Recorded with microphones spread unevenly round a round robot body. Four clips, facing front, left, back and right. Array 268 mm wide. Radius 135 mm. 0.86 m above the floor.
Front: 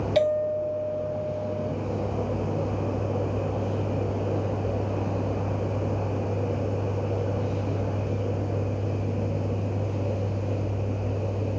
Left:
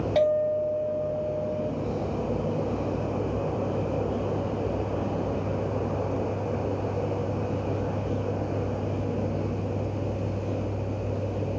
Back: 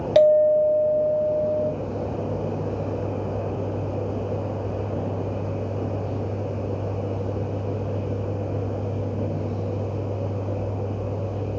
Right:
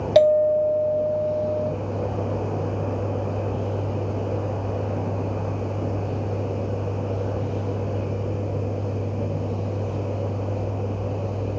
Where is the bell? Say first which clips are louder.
Right 7 dB, back 9 dB; 135° right, 0.7 m.